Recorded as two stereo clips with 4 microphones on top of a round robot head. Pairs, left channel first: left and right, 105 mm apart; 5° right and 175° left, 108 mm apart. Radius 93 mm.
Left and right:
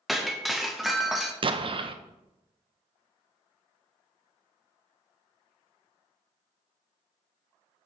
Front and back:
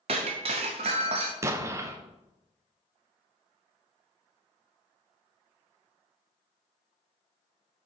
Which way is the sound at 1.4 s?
125° right.